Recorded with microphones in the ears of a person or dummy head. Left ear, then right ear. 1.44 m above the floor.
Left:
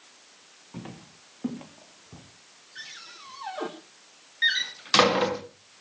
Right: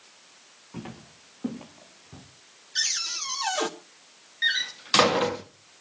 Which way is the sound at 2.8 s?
85° right.